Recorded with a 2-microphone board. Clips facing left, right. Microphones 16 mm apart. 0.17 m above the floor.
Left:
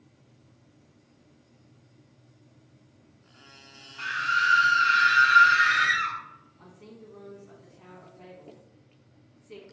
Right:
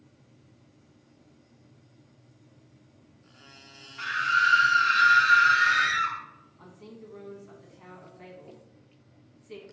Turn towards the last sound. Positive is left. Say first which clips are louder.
# right 4 dB
turn(degrees=-15)  # may be behind; listen again after turning